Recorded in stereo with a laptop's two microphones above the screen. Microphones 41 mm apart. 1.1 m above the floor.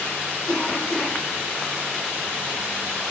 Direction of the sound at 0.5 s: 35° left (ahead or behind).